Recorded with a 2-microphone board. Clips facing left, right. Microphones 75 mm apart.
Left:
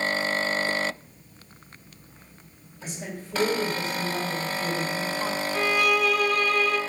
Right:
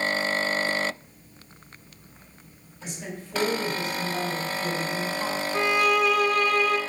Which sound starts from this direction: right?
A violin, at 5.5 s.